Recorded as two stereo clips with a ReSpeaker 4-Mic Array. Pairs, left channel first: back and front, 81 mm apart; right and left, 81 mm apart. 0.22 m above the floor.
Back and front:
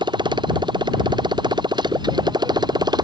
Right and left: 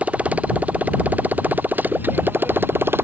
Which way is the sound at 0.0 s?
15° left.